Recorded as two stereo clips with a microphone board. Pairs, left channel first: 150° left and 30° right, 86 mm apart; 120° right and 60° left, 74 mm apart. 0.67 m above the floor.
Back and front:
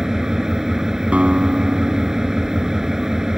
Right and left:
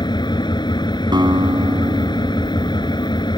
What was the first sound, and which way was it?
An engine running, 115° right.